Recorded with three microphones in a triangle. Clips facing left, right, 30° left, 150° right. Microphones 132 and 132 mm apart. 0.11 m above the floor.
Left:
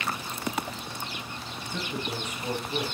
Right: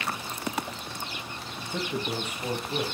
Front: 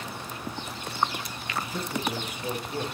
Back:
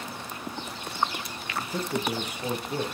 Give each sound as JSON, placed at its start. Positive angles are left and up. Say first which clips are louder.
{"t": 1.6, "sound": "a man speaking", "louder": "right 3 dB, back 2 dB", "azimuth_deg": -155, "distance_m": 3.0}